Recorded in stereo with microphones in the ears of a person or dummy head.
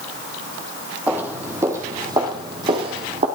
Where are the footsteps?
5° right (ahead or behind), 3 m; by 3.3 s 30° right (ahead or behind), 3.5 m.